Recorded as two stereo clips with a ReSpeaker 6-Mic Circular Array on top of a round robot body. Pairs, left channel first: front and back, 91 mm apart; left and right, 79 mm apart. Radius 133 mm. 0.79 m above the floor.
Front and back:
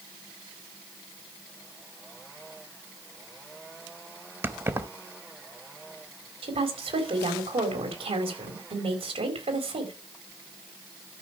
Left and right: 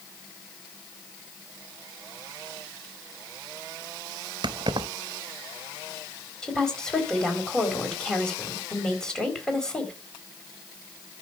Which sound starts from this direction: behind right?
Keys jangling, at 4.4 s.